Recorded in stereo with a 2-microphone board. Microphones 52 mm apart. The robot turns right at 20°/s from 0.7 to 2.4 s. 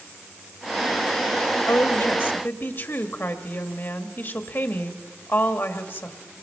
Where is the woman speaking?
60° left (ahead or behind), 1.7 m; by 6.2 s 45° left (ahead or behind), 1.7 m.